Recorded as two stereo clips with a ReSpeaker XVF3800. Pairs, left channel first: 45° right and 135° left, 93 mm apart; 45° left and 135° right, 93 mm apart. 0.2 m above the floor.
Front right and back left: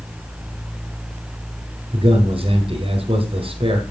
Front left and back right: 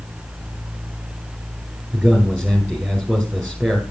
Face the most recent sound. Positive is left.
turn(degrees=140)